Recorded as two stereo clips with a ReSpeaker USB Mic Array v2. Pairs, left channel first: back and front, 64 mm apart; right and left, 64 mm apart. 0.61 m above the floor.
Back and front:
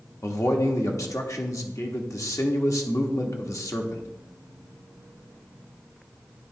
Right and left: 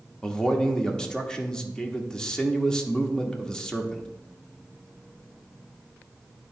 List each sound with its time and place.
0.2 s a man speaking: 165° right, 1.0 m